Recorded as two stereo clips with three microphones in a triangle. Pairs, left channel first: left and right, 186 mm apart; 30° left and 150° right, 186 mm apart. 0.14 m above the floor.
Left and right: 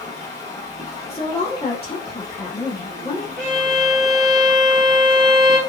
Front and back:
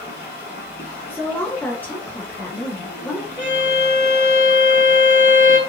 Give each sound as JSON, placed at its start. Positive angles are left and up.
{"t": 0.0, "sound": "running water", "azimuth_deg": 25, "distance_m": 1.2}
{"t": 1.1, "sound": "a woman speaking", "azimuth_deg": 100, "distance_m": 1.2}
{"t": 3.4, "sound": "a violin", "azimuth_deg": 5, "distance_m": 1.2}